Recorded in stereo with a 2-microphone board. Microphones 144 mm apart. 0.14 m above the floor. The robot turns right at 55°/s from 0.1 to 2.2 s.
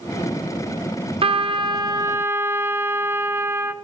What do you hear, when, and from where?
1.2 s a trumpet: 80° right, 0.9 m; by 3.7 s 25° right, 0.9 m